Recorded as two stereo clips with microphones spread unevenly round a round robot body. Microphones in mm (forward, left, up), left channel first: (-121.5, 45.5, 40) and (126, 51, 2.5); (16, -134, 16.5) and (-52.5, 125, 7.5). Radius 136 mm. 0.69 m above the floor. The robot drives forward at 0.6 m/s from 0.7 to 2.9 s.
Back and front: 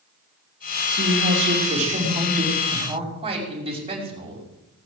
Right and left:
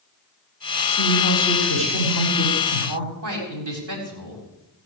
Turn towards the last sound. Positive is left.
turn(degrees=65)